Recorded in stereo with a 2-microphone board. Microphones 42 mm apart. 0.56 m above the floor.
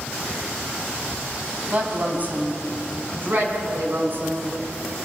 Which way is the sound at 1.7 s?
35° right (ahead or behind).